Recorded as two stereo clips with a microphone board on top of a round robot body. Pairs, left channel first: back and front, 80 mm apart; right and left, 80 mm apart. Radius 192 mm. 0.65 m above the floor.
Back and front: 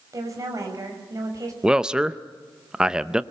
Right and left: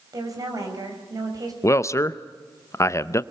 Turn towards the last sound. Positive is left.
turn(degrees=-75)